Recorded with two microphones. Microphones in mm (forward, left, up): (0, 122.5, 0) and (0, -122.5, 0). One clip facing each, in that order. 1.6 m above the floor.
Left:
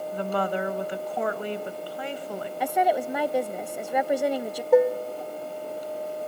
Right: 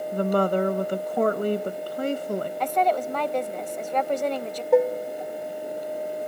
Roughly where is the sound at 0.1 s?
Right.